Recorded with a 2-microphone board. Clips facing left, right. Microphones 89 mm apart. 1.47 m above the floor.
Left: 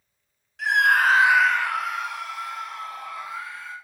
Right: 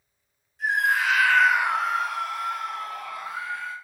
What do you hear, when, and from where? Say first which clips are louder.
0.6 s a scream: left 4 dB; 75° left (ahead or behind), 1.0 m; by 3.7 s 55° right (ahead or behind), 3.5 m